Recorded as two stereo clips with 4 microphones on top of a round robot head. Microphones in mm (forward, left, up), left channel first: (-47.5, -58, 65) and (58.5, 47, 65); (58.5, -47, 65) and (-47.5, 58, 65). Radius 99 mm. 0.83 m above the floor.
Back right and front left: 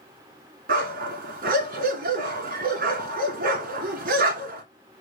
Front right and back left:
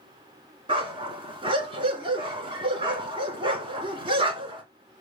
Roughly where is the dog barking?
Left.